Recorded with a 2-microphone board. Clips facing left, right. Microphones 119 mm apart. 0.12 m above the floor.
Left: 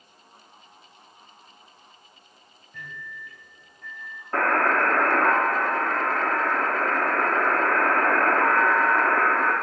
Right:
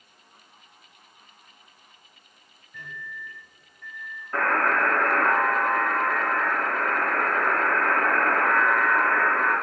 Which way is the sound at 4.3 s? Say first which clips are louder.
Left 2 dB; 35° left (ahead or behind).